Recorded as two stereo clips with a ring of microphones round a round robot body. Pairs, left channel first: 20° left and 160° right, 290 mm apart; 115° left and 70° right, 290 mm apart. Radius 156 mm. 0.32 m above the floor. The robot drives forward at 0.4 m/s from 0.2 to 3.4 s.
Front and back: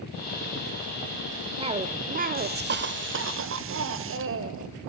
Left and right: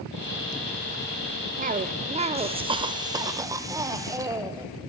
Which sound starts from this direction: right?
A cough, at 1.6 s.